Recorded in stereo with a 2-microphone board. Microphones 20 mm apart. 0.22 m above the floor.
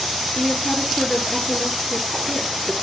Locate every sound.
0.3 s a woman speaking: 40° left (ahead or behind), 3.5 m